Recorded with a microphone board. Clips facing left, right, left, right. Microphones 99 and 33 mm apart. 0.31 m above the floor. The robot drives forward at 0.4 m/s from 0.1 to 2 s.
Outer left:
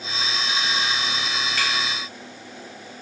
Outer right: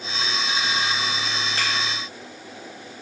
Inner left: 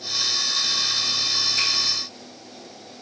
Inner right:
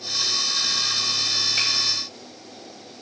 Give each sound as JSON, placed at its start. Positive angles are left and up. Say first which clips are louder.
{"t": 1.6, "sound": "a finger snap", "louder": "outer left 1 dB, even", "side_deg": -30, "distance_m": 1.7}